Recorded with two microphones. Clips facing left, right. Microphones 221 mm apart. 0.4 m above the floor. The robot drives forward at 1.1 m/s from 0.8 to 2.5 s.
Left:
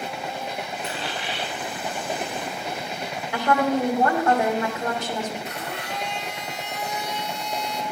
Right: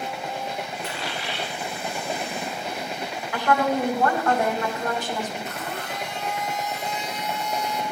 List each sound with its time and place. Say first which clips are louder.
0.8 s a dropped coin: left 1 dB; 30° left (ahead or behind), 4 m; by 1.5 s 25° left (ahead or behind), 4.5 m
3.3 s a woman speaking: left 1 dB; 25° left (ahead or behind), 1.8 m
5.5 s a blender: even; 80° left, 2.5 m